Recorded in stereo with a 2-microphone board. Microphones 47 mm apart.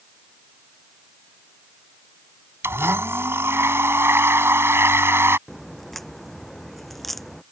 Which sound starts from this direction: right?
A blender, at 2.6 s.